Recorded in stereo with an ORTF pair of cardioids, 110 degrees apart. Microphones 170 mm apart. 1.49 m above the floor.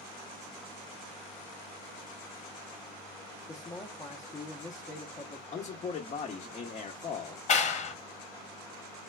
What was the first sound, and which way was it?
A man speaking, 25° left.